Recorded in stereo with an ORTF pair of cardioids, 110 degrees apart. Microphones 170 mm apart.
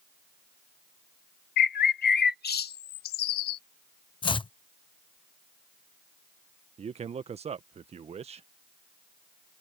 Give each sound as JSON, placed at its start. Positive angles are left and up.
{"t": 1.6, "sound": "a bird", "azimuth_deg": 65}
{"t": 4.2, "sound": "chopping", "azimuth_deg": 30}
{"t": 6.8, "sound": "a man speaking", "azimuth_deg": -35}